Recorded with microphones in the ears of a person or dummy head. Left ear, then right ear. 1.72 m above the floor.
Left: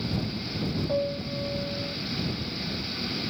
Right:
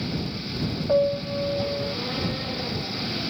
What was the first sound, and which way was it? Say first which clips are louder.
A piano: right 9 dB; 40° right (ahead or behind).